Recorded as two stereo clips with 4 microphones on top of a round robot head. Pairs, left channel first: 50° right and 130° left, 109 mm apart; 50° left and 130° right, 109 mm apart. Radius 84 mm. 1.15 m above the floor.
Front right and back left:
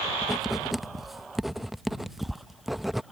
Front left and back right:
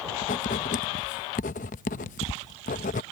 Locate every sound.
0.2 s writing: 45° left